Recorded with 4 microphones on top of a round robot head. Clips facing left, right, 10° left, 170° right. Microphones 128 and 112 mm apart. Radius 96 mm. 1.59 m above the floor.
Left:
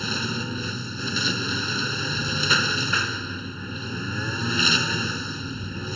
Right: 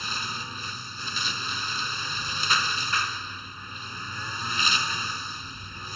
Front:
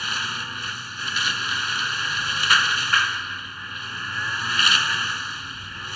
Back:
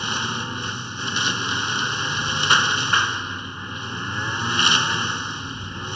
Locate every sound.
0.0 s a lawn mower: 125° left